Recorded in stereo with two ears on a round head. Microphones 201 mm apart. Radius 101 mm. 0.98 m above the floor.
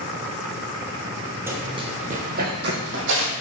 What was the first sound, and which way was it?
Running footsteps, 10° right (ahead or behind).